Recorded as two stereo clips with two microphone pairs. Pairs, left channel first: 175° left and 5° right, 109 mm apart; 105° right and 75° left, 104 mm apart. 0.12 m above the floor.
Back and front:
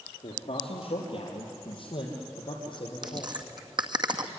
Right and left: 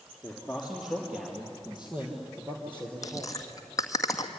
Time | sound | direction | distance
0.2 | a man speaking | 170° left | 3.5 m
3.0 | chewing | 50° right | 1.9 m